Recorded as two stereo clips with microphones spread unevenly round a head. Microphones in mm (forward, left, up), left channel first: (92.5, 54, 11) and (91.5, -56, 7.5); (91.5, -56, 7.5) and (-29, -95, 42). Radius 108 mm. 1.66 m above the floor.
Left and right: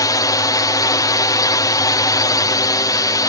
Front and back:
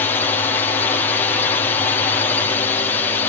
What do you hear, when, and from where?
0.0 s a drone: 60° left